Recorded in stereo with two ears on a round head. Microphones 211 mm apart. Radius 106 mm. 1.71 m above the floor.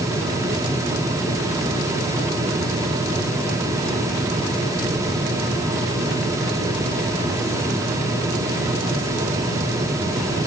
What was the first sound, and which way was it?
Only background noise.